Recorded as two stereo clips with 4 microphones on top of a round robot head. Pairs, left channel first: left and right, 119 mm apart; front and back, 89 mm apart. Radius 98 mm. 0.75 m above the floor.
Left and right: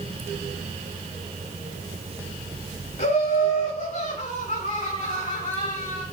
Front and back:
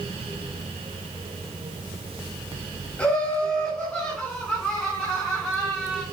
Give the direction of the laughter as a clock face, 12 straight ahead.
9 o'clock.